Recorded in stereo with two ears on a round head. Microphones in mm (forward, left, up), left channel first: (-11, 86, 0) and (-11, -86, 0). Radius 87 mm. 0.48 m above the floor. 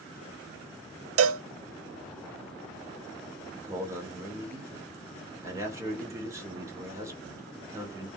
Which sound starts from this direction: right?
A cowbell, at 1.2 s.